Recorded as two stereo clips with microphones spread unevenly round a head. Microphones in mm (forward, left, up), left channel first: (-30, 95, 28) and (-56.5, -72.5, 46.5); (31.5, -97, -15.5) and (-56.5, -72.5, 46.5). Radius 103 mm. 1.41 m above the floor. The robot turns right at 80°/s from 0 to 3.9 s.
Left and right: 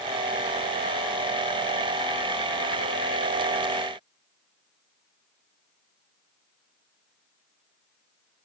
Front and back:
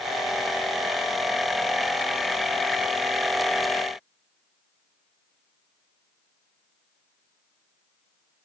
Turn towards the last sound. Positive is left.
No sound to turn to.